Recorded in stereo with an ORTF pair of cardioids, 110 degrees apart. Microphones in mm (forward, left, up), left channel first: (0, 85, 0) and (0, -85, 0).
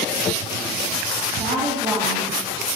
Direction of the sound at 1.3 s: 30° right.